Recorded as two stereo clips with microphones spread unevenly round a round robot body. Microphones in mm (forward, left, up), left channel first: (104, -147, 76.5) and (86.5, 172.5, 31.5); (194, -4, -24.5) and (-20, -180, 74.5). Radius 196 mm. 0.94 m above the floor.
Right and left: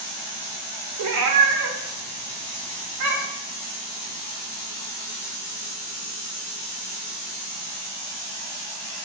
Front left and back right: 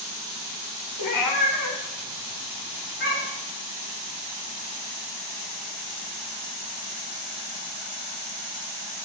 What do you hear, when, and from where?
1.0 s a cat meowing: 65° left, 1.8 m; by 3.5 s 110° left, 3.5 m